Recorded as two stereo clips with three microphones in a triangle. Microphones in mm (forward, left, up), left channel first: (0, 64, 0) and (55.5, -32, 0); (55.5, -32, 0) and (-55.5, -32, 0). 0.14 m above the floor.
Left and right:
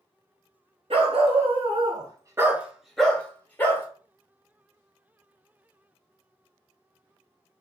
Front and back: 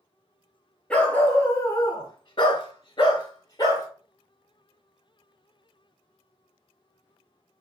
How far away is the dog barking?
About 0.9 m.